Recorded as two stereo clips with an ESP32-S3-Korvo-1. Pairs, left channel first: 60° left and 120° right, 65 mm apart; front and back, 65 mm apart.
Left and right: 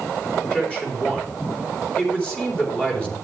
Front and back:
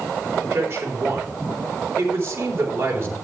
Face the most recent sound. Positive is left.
turn(degrees=130)